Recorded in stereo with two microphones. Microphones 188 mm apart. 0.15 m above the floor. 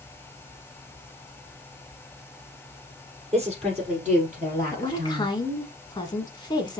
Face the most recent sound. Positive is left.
turn(degrees=25)  # may be behind; listen again after turning